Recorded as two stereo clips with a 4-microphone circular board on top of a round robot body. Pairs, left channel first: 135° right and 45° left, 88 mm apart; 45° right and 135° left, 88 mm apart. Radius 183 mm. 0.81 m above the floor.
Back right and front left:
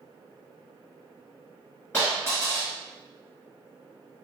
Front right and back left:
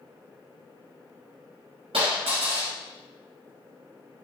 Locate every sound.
1.9 s a dropped coin: 150° left, 1.8 m